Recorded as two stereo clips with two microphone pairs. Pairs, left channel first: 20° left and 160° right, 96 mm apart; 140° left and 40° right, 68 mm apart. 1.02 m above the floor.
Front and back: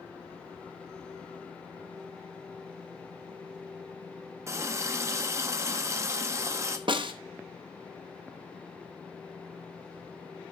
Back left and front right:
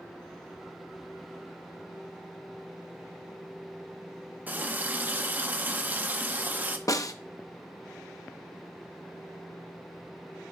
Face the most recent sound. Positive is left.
turn(degrees=170)